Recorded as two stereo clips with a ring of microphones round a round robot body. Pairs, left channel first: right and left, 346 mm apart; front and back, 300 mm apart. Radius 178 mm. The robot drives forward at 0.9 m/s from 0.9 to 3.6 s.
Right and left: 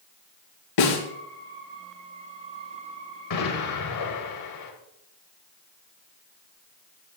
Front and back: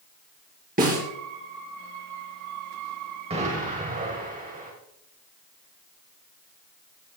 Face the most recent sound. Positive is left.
turn(degrees=-115)